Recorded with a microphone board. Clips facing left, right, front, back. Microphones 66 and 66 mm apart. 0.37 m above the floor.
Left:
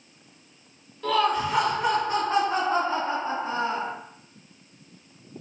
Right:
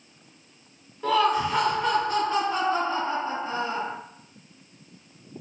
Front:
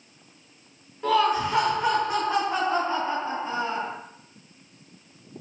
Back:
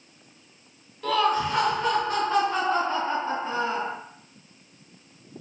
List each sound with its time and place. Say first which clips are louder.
1.0 s laughter: right 1 dB, front 1 dB; 40° right, 0.8 m; by 3.9 s 80° left, 1.6 m